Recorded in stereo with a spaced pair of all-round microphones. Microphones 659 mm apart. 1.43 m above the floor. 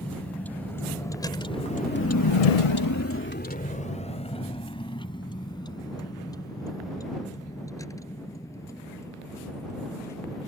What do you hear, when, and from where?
0.0 s a vehicle: centre (ahead or behind); by 10.5 s 5° left (ahead or behind)